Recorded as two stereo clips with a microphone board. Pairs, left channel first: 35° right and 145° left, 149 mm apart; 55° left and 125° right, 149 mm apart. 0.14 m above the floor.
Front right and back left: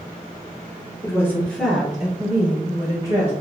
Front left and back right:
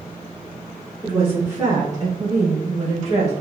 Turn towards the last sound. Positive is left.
turn(degrees=180)